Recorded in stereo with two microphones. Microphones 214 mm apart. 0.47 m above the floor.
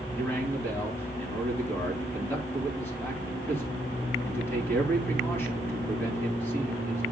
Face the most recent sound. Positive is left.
turn(degrees=10)  # may be behind; listen again after turning